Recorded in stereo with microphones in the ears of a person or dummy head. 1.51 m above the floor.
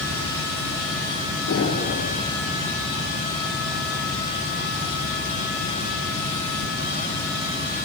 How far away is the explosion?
About 3.5 m.